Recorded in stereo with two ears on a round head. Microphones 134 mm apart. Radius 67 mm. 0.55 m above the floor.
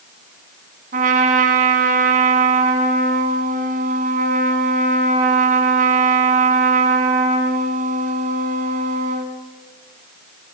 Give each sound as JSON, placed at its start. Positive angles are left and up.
{"t": 0.9, "sound": "a trumpet", "side_deg": -55, "distance_m": 2.5}